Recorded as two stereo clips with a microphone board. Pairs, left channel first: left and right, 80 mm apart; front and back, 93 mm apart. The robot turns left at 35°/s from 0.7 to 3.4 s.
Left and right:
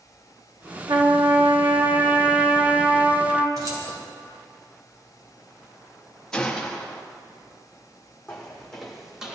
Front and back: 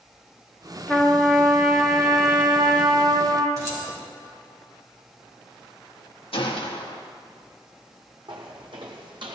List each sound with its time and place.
0.9 s a trumpet: 75° right, 2.5 m; by 3.5 s 165° right, 2.5 m
3.6 s keys jangling: 130° right, 2.5 m
6.3 s a gunshot: 10° left, 1.3 m
8.3 s footsteps: 170° left, 2 m; by 9.4 s 170° right, 2.0 m